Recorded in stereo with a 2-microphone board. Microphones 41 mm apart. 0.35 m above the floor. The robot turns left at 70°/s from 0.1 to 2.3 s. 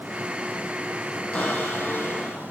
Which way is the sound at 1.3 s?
140° left.